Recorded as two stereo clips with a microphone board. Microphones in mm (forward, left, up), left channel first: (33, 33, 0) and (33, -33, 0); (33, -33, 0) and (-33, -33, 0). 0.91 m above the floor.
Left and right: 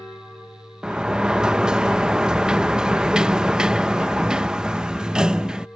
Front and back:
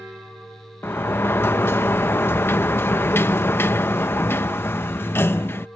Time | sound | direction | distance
0.8 | a sliding door | 20° right | ?